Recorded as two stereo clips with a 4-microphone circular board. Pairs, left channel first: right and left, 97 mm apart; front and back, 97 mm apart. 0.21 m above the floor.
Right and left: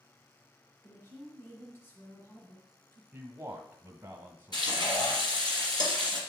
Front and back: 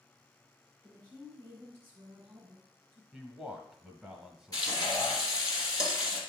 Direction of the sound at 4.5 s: 50° right.